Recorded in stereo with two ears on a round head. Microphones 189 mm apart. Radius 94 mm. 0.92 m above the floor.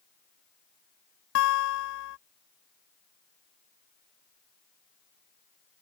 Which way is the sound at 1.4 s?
65° left (ahead or behind).